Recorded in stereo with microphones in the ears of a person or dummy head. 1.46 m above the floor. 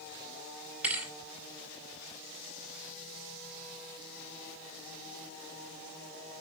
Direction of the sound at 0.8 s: 5° right (ahead or behind).